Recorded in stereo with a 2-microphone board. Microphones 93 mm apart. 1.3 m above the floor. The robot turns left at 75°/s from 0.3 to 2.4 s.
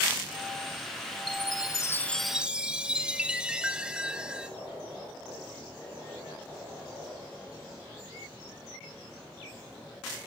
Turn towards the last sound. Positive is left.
turn(degrees=-10)